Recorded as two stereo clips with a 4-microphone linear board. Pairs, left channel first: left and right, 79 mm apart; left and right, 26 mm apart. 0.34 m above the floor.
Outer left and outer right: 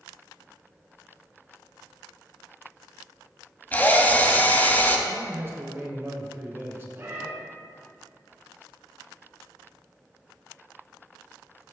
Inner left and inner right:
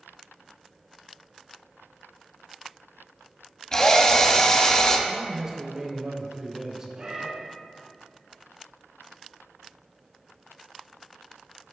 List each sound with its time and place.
3.7 s a drill: 25° left (ahead or behind), 0.9 m
5.1 s a man speaking: 30° right (ahead or behind), 1.0 m
7.0 s a cat meowing: 35° right (ahead or behind), 1.9 m